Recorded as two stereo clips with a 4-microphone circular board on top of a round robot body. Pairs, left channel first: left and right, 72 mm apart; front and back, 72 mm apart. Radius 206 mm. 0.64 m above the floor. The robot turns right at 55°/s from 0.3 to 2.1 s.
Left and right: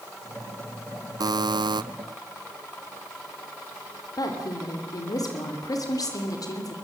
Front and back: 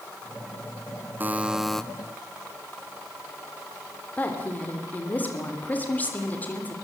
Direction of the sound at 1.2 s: 115° right.